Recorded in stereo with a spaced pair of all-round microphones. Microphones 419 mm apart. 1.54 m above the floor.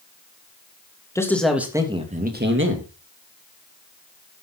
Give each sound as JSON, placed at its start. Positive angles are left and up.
{"t": 1.1, "sound": "a man speaking", "side_deg": 5, "distance_m": 3.0}